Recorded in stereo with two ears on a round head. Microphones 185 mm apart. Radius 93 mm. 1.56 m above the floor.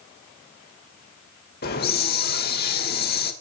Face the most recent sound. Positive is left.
turn(degrees=45)  # may be behind; listen again after turning